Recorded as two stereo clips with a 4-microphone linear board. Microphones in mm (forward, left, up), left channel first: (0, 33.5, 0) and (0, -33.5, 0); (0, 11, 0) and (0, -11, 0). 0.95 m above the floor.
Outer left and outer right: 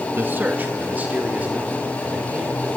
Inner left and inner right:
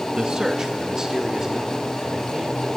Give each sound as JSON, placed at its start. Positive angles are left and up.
{"t": 0.1, "sound": "a man speaking", "side_deg": -30, "distance_m": 1.0}